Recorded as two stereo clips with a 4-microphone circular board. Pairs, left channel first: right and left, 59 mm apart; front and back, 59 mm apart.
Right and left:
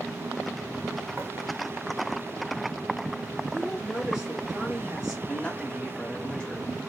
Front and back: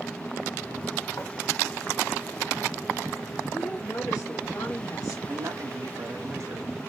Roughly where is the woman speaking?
Ahead.